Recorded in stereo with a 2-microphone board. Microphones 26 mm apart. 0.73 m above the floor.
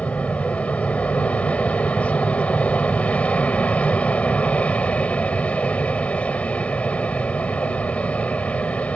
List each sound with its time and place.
0.0 s an aircraft: 65° left (ahead or behind)